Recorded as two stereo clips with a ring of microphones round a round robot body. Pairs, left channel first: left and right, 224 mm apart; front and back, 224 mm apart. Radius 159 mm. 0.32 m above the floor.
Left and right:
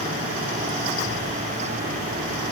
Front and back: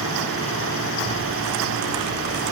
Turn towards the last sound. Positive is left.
No sound to turn to.